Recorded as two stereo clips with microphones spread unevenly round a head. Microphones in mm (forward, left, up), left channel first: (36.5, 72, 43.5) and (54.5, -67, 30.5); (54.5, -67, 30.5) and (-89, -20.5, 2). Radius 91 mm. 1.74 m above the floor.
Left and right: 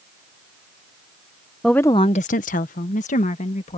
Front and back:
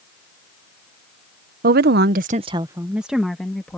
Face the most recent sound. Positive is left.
turn(degrees=60)